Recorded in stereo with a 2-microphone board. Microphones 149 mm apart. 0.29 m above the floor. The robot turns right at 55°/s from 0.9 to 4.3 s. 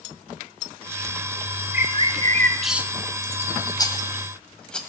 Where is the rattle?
25° left (ahead or behind), 1.5 m; by 4.8 s 5° left (ahead or behind), 1.5 m.